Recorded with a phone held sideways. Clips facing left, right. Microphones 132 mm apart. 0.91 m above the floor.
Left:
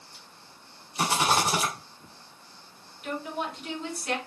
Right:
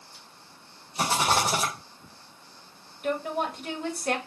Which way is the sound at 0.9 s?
30° right (ahead or behind).